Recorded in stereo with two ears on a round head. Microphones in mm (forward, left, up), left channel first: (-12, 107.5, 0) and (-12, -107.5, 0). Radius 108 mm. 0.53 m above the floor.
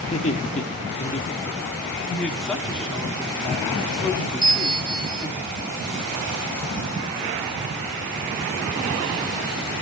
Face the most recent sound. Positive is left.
turn(degrees=-20)  # may be behind; listen again after turning